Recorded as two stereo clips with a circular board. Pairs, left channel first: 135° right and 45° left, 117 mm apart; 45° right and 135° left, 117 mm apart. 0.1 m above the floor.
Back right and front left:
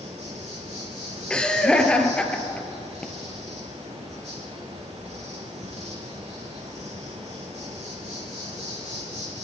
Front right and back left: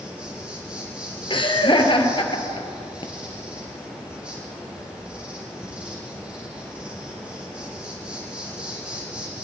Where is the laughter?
55° right, 1.9 m.